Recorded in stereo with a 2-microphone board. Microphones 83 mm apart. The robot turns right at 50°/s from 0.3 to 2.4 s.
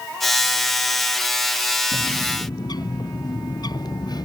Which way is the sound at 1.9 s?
75° left (ahead or behind).